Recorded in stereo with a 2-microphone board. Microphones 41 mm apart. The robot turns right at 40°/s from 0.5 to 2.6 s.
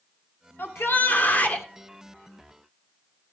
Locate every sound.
0.6 s a shout: 100° left, 2 m; by 1.7 s 145° left, 2 m